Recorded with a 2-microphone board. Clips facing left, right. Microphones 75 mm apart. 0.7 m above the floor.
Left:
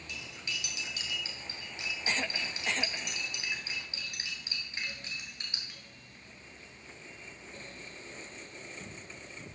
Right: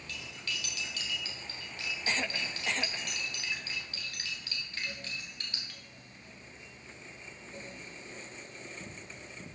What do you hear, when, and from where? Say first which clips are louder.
0.1 s cutlery clinking: even; 20° left (ahead or behind), 2.0 m